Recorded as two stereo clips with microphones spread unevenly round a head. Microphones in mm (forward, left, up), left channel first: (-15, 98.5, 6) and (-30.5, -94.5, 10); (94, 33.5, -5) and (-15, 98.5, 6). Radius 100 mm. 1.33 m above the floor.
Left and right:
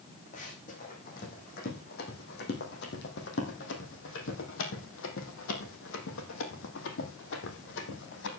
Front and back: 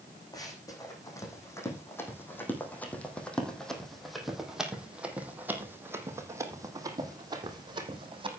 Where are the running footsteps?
30° left, 4 m; by 8.3 s 105° left, 3.5 m.